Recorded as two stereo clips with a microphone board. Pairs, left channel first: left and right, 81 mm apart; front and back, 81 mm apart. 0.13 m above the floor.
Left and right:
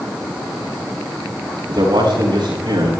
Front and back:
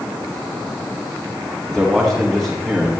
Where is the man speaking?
85° right, 8 m.